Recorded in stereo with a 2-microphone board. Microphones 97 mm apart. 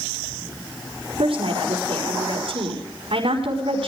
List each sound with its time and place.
1.2 s a woman speaking: 85° right, 4.5 m